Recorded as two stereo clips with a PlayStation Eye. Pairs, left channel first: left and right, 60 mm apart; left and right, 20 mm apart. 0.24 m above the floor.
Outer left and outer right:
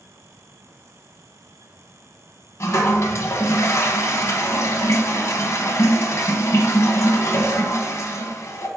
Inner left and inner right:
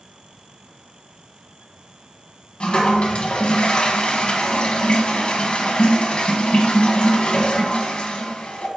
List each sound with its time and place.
2.6 s a toilet flushing: 55° left (ahead or behind), 1.0 m